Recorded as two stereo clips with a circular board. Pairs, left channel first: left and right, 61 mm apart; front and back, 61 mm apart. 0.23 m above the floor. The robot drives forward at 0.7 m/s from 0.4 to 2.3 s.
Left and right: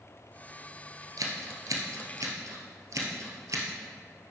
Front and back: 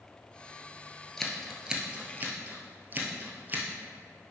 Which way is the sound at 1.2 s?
80° right.